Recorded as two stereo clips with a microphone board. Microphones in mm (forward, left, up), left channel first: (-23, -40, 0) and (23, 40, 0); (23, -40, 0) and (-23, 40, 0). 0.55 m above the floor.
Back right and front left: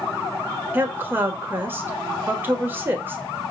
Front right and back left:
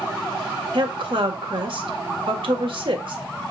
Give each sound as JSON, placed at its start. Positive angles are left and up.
{"t": 0.7, "sound": "a woman speaking", "azimuth_deg": 125, "distance_m": 1.6}